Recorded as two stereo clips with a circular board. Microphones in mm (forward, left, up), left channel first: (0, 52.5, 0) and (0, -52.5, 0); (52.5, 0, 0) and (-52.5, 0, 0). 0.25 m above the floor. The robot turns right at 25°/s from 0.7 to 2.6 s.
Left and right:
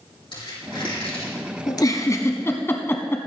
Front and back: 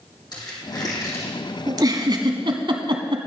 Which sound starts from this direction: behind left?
A giggle, at 1.7 s.